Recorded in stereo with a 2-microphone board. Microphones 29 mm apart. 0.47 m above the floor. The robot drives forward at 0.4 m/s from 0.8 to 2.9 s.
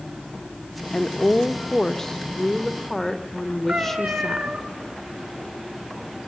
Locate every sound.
0.9 s a woman speaking: 20° left (ahead or behind), 0.7 m; by 4.5 s 15° left (ahead or behind), 1.1 m
3.7 s a cat meowing: 60° right (ahead or behind), 3.5 m